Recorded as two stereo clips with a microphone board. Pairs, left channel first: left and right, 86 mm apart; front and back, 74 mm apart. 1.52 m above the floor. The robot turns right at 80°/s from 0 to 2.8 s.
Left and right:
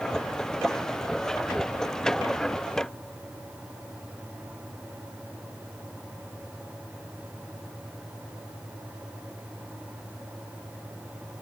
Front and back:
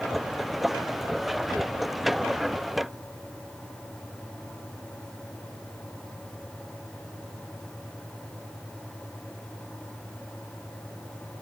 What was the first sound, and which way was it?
Only background noise.